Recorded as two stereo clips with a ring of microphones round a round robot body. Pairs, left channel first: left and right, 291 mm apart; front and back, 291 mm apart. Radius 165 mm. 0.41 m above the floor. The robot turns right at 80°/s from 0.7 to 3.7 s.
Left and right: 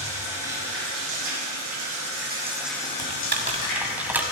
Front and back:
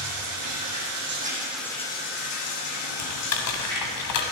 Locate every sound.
0.0 s running water: 160° right, 4 m; by 4.3 s 80° left, 4 m
3.0 s typing on a keyboard: 65° right, 1.9 m; by 4.2 s 5° right, 1.9 m